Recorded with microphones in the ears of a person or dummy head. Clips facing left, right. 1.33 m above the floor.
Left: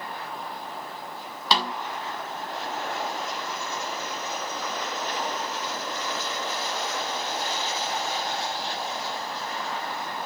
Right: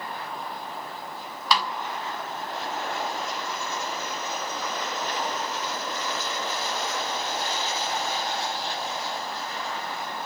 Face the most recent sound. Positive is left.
turn(degrees=30)  # may be behind; listen again after turning